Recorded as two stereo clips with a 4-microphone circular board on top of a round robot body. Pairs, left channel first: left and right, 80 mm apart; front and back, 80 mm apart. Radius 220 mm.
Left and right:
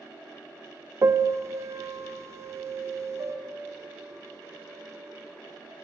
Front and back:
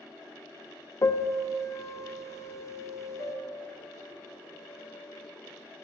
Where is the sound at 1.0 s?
40° right, 0.8 m.